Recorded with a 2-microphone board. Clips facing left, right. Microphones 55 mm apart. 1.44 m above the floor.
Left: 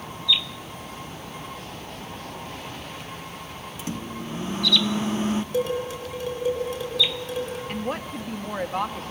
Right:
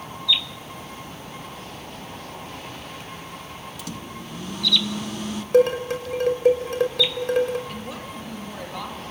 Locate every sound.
3.8 s a microwave: 30° left (ahead or behind), 1.0 m
5.5 s dishes clattering: 60° right (ahead or behind), 4.5 m
7.7 s a woman speaking: 45° left (ahead or behind), 2.5 m